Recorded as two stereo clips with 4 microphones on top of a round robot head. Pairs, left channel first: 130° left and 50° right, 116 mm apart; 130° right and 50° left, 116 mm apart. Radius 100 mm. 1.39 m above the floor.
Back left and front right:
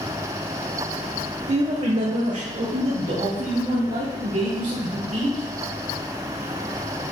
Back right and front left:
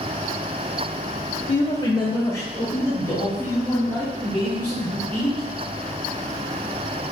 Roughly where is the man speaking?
Right.